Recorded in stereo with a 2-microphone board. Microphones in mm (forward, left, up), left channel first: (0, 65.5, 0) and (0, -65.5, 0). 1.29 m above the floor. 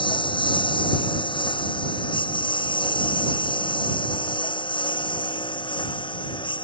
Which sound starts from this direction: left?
A lawn mower, at 0.0 s.